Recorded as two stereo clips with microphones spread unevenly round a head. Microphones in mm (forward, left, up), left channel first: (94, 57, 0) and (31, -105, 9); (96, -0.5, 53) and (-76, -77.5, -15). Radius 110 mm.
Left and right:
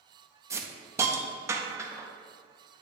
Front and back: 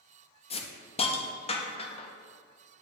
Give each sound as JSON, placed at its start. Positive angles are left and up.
{"t": 0.5, "sound": "a hiss", "azimuth_deg": -45, "distance_m": 0.7}